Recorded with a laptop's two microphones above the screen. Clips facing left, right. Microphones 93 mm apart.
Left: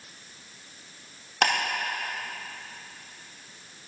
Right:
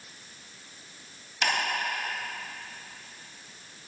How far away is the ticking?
About 2.0 m.